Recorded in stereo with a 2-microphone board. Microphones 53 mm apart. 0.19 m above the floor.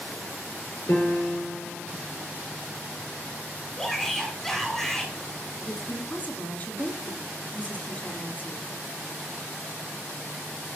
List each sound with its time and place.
0.9 s a piano: 50° left (ahead or behind), 2.5 m
3.8 s a shout: 5° left (ahead or behind), 1.9 m
5.7 s a woman speaking: 35° left (ahead or behind), 1.6 m